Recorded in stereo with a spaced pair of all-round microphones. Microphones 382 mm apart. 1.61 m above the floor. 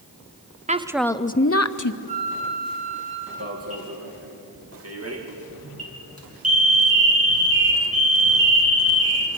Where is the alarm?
40° right (ahead or behind), 3 m.